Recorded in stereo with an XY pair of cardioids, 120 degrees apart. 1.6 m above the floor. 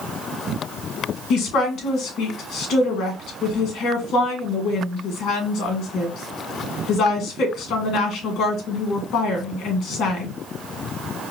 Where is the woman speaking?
65° left, 1.9 m.